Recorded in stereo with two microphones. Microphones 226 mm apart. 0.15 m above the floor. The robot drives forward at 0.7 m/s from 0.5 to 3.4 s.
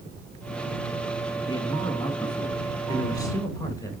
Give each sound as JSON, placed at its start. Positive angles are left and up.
{"t": 1.5, "sound": "a man speaking", "side_deg": 15, "distance_m": 1.5}